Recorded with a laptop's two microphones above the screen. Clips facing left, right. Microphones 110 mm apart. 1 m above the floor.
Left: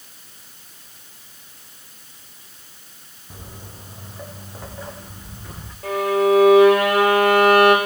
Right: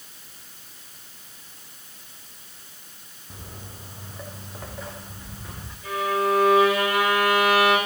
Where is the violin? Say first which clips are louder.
Left 6 dB; 80° left, 2.5 m.